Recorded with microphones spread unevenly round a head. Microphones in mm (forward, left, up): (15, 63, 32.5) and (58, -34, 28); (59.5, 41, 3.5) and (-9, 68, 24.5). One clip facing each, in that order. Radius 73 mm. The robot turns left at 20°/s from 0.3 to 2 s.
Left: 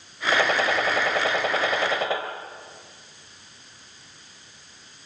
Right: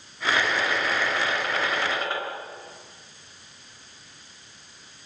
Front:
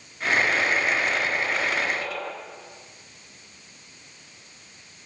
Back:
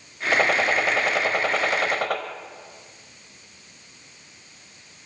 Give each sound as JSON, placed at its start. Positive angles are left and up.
{"t": 0.3, "sound": "a gunshot", "azimuth_deg": 165, "distance_m": 3.0}